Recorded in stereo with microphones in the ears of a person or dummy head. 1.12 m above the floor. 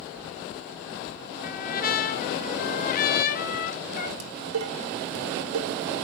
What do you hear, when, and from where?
1.4 s a trumpet: 45° left (ahead or behind), 0.9 m
4.2 s dishes clattering: 80° right, 1.7 m